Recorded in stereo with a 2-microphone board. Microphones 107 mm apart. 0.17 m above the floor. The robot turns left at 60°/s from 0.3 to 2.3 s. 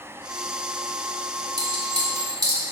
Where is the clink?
40° right (ahead or behind), 1.3 m.